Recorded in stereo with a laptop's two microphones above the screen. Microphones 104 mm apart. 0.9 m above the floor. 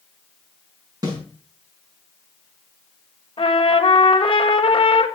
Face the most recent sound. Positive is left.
turn(degrees=55)  # may be behind; listen again after turning